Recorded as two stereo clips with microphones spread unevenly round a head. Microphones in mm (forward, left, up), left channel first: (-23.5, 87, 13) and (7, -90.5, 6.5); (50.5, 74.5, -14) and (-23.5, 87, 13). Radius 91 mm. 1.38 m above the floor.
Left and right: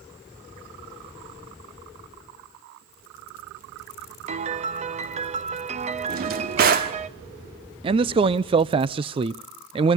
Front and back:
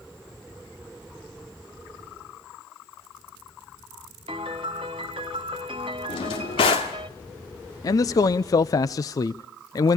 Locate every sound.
4.3 s a piano: 135° right, 0.9 m
6.1 s a drawer: 40° right, 1.5 m
7.8 s a man speaking: 20° right, 0.5 m